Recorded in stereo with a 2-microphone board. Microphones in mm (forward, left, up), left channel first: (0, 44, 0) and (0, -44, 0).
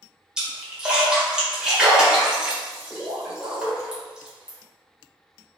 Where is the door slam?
No door slam in this recording.